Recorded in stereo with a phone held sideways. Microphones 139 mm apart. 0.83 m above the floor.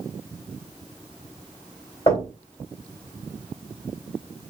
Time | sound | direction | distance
2.1 | knocking | 40° left (ahead or behind) | 3 m